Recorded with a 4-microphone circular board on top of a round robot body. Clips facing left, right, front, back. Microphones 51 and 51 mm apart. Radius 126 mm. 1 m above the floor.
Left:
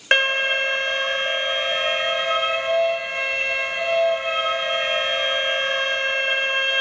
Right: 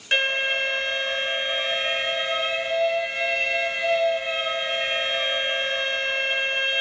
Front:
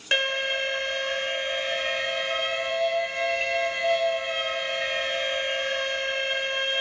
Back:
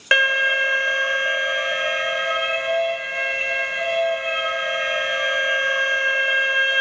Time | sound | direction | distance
0.1 | an alarm | 135° left | 0.8 m